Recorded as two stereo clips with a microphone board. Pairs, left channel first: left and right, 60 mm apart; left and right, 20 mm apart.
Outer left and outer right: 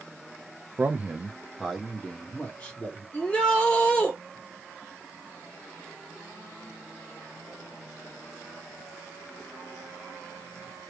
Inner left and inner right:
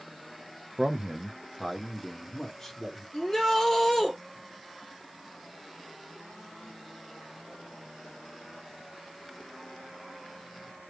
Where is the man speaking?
30° right (ahead or behind), 1.0 m; by 3.0 s 25° left (ahead or behind), 3 m.